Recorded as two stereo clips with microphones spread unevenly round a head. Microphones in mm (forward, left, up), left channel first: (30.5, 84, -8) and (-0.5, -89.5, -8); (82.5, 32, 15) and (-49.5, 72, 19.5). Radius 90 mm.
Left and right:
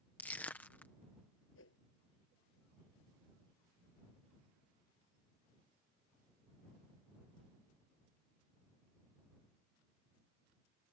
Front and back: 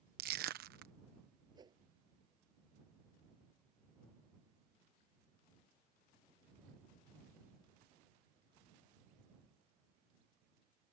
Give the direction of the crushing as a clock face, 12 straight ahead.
7 o'clock.